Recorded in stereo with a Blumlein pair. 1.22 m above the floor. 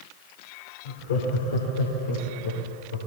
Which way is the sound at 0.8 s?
55° left.